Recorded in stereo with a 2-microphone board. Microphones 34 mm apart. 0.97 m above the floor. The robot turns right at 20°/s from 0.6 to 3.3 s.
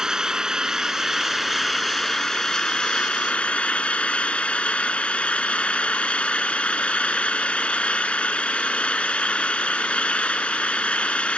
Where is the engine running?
15° right; by 11.4 s 35° left.